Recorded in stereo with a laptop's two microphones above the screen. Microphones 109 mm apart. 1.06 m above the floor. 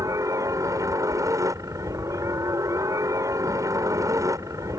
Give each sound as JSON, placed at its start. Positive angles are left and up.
{"t": 0.0, "sound": "a helicopter", "side_deg": -30}